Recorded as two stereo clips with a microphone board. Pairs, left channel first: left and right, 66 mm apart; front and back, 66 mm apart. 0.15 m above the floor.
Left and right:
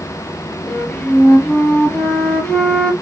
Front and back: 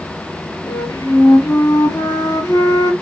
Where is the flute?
20° left, 0.9 m.